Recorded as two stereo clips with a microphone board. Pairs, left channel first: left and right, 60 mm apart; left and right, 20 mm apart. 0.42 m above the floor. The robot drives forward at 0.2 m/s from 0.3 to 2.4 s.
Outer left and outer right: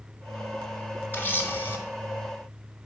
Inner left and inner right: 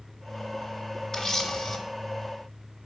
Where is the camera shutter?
35° left (ahead or behind), 1.1 m.